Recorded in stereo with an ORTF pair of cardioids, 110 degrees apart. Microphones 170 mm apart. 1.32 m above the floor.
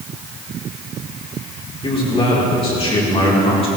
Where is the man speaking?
35° left, 4.5 m.